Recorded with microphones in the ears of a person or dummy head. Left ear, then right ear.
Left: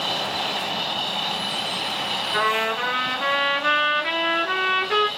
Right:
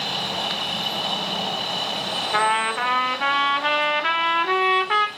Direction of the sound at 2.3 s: 30° right (ahead or behind).